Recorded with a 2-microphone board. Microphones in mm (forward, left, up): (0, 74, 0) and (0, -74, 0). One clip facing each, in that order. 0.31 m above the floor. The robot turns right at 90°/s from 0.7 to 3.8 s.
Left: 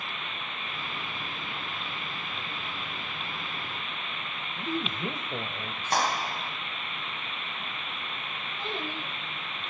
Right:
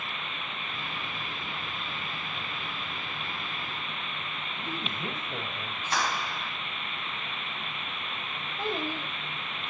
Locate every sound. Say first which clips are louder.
4.6 s a woman speaking: left 6 dB; 15° left (ahead or behind), 1.4 m
5.9 s a clap: left 3 dB; 40° left (ahead or behind), 1.6 m
8.6 s a child speaking: right 4 dB; 45° right (ahead or behind), 6.5 m